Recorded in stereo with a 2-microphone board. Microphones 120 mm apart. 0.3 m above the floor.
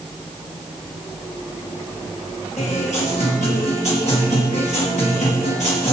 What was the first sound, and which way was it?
A guitar, 75° left (ahead or behind).